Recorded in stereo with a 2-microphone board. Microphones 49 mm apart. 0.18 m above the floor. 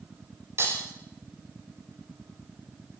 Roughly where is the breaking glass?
Right.